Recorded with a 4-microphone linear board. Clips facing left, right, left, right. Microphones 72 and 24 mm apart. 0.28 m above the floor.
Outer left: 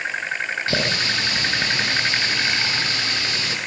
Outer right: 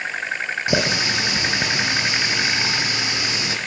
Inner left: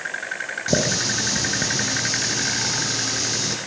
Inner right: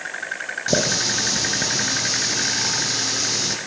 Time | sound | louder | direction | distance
0.7 | a running tap | outer right 4 dB, inner right 1 dB | 15° right (ahead or behind) | 7 m